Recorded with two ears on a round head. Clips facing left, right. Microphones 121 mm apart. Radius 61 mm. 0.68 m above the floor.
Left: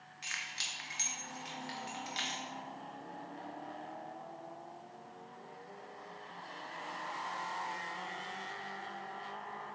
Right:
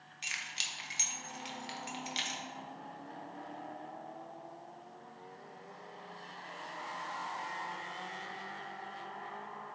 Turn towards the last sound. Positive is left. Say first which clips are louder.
# even
turn(degrees=-25)  # may be behind; listen again after turning